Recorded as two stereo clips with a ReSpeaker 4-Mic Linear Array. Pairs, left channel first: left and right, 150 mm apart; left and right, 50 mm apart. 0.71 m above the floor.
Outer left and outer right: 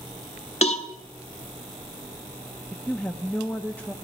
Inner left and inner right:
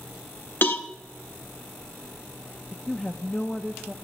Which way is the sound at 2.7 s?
10° left (ahead or behind).